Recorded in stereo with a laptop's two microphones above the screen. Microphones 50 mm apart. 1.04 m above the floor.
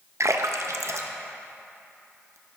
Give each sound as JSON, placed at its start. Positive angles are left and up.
{"t": 0.2, "sound": "a splash", "side_deg": -70, "distance_m": 0.6}